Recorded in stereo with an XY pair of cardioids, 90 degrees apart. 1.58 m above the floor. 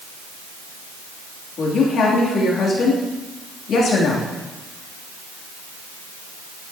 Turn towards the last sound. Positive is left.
turn(degrees=70)